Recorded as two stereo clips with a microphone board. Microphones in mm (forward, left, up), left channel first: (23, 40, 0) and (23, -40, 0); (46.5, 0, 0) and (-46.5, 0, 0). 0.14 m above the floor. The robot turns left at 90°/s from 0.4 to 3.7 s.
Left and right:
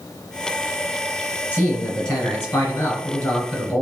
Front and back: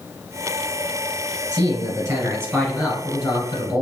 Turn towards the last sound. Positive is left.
turn(degrees=15)